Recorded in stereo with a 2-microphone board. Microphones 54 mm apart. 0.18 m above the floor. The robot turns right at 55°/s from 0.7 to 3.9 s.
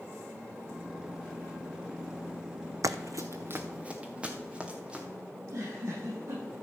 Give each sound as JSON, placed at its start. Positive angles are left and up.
{"t": 2.8, "sound": "running footsteps", "side_deg": -80, "distance_m": 0.6}
{"t": 5.3, "sound": "a giggle", "side_deg": -75, "distance_m": 6.0}